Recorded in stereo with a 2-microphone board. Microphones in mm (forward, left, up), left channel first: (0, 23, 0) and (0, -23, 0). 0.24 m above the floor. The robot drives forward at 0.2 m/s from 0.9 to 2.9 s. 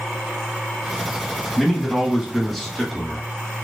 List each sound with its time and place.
1.6 s a man speaking: 5° left (ahead or behind), 1.2 m